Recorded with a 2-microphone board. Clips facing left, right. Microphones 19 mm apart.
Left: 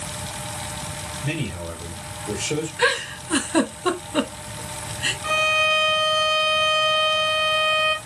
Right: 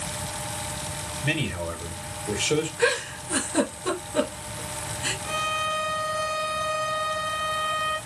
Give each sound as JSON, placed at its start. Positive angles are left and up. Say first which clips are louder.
{"t": 1.2, "sound": "a man speaking", "louder": "right 2 dB", "side_deg": -25, "distance_m": 1.3}
{"t": 2.8, "sound": "a giggle", "louder": "left 3 dB", "side_deg": 60, "distance_m": 1.3}
{"t": 5.2, "sound": "a violin", "louder": "left 9 dB", "side_deg": 40, "distance_m": 0.6}